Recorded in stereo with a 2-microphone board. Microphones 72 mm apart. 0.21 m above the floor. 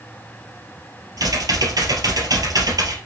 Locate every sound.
1.2 s typing on a keyboard: 60° right (ahead or behind), 3 m